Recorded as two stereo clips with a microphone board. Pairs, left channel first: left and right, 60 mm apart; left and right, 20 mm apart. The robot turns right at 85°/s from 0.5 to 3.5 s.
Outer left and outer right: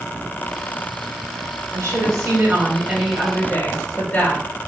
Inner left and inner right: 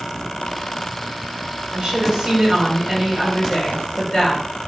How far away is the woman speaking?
About 2 m.